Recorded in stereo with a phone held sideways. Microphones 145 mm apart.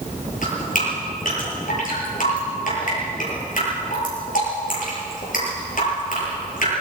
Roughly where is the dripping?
Left.